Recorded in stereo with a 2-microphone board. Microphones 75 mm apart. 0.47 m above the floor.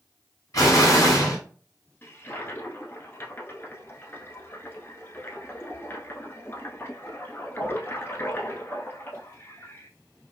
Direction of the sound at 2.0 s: 35° left (ahead or behind).